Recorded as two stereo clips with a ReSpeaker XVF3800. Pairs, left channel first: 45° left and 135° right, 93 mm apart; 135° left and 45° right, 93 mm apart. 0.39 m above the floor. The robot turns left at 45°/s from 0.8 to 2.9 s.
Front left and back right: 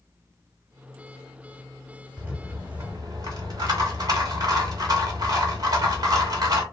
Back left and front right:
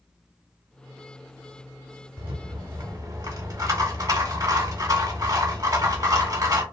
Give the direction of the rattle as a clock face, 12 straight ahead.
2 o'clock.